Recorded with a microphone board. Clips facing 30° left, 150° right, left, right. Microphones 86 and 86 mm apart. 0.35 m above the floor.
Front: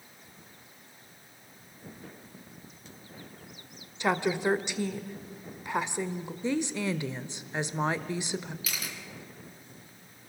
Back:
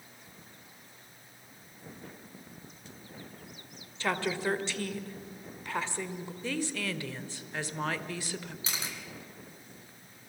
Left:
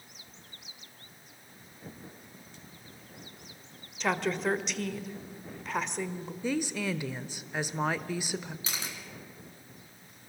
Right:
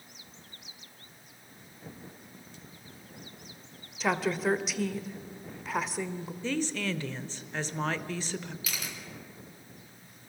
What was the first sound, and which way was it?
A woman speaking, 10° right.